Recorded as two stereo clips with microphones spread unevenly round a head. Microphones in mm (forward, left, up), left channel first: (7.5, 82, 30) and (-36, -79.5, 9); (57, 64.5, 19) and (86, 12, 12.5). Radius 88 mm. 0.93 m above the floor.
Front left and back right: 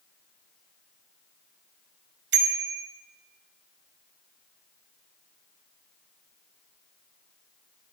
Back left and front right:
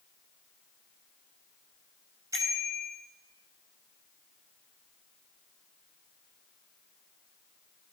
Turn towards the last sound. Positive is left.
turn(degrees=-125)